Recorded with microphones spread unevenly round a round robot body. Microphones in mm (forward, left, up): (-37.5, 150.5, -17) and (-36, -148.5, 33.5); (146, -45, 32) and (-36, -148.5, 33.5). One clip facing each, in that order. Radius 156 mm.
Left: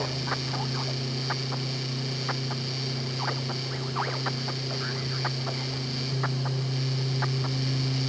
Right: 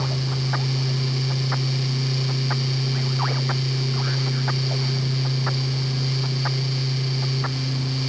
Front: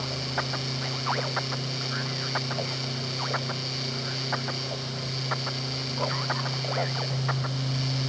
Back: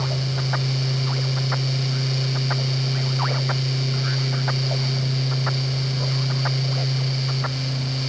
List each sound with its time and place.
Only background noise.